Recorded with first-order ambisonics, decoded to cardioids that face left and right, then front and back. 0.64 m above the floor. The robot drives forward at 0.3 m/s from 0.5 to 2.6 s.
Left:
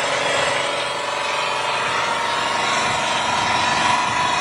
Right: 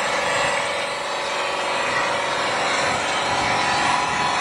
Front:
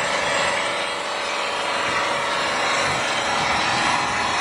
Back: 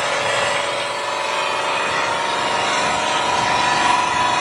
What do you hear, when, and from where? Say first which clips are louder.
0.0 s an engine running: left 1 dB, back 2 dB; 130° left, 1.6 m; by 4.4 s 145° left, 2 m